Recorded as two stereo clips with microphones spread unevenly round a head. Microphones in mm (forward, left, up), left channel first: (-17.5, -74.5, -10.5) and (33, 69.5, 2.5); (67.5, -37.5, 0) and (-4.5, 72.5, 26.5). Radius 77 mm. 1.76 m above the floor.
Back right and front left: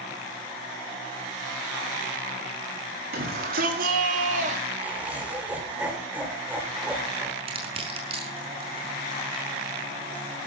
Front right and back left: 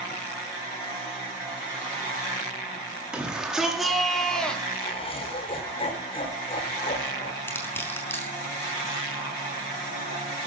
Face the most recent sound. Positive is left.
turn(degrees=20)